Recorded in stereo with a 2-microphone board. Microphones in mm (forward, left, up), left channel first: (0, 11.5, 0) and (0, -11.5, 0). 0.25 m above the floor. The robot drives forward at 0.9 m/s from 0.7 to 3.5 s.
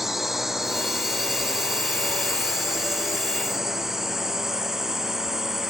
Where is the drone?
10° right (ahead or behind); by 5.7 s 15° right (ahead or behind).